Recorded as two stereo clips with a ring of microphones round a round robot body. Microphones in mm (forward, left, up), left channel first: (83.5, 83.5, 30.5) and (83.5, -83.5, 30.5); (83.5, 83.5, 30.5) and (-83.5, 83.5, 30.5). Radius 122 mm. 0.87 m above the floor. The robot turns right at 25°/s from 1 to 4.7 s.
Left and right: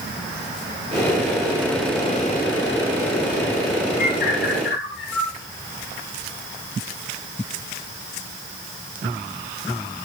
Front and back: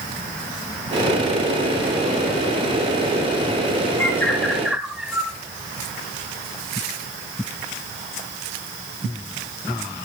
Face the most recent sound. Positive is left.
turn(degrees=90)